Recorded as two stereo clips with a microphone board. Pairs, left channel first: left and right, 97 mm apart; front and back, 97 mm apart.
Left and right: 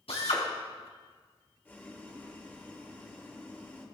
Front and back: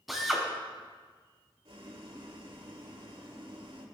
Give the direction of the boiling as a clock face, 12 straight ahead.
7 o'clock.